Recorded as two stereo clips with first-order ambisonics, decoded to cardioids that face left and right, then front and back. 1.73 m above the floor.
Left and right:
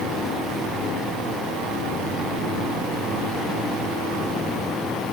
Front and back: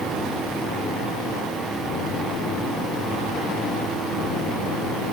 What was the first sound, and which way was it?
Only background noise.